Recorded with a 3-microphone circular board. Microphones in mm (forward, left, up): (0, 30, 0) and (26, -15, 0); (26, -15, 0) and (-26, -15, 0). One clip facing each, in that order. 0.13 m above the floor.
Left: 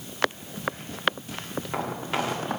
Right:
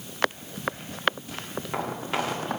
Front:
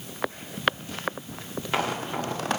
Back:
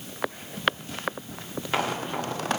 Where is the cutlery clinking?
No cutlery clinking in this recording.